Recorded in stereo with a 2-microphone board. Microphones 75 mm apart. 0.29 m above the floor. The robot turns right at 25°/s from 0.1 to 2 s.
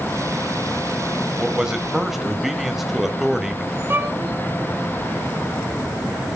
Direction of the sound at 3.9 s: 30° right (ahead or behind).